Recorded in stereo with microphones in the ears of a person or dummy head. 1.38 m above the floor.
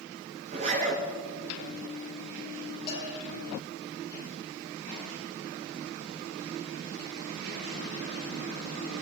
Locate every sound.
0.5 s a zipper: 40° right (ahead or behind), 5.5 m
2.9 s a bell: 20° left (ahead or behind), 5.5 m